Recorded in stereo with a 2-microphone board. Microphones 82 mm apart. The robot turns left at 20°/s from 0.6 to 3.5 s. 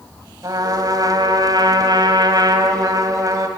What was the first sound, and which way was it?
A trumpet, 65° right.